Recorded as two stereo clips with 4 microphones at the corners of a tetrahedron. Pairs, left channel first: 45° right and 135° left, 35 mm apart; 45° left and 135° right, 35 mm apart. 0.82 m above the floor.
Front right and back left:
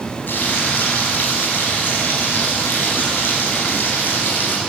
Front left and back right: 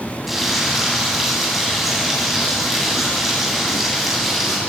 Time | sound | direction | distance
0.3 | frying | 50° right | 7.5 m